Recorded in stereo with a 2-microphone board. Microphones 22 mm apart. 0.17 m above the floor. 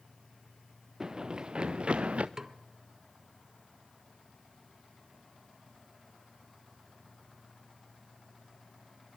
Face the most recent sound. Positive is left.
turn(degrees=-25)  # may be behind; listen again after turning